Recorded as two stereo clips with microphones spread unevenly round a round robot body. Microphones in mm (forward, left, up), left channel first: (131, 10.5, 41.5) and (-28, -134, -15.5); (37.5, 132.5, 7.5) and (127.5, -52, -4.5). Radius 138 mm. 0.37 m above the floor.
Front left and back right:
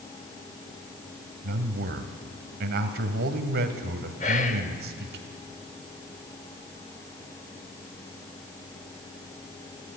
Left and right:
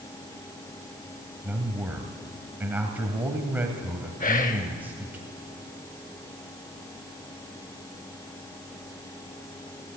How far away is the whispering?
About 1.2 m.